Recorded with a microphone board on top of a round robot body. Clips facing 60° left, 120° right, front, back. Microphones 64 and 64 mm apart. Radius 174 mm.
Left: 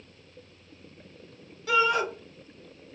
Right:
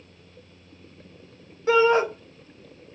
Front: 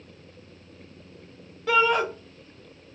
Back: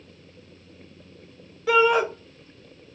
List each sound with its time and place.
1.7 s a shout: 95° right, 1.0 m